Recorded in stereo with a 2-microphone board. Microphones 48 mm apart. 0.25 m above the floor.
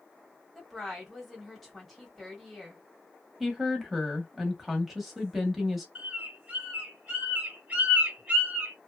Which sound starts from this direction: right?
A bird, at 6.0 s.